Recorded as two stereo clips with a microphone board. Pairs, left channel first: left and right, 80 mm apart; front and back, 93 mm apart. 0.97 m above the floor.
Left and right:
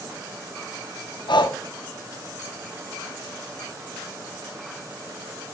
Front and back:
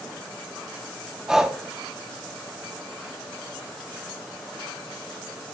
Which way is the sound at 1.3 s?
95° left.